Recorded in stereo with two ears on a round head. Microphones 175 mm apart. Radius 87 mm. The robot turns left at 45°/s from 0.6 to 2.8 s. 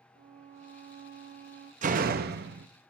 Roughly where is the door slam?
Ahead right.